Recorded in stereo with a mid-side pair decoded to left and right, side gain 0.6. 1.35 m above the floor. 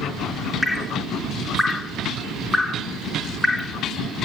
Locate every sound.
0.6 s dripping: 15° left, 2 m